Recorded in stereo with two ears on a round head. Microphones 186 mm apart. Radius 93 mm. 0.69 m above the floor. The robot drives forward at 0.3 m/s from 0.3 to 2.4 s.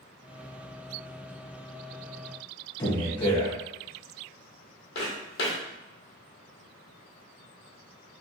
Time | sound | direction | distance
2.8 | a man speaking | 20° left (ahead or behind) | 0.9 m
5.0 | footsteps | 55° left (ahead or behind) | 1.5 m